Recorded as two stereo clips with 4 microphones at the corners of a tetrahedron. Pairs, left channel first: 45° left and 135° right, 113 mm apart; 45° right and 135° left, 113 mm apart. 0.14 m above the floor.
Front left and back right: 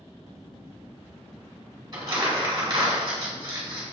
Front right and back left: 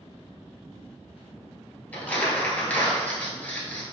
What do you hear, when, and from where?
1.9 s crumpling: 115° right, 1.2 m